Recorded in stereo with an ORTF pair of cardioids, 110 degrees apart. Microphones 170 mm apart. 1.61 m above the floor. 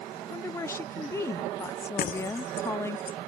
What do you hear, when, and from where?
0.3 s a woman speaking: 15° left
2.0 s breaking glass: 60° left